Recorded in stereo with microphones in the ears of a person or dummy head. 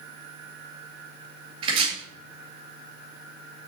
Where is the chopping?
30° right (ahead or behind), 3 m.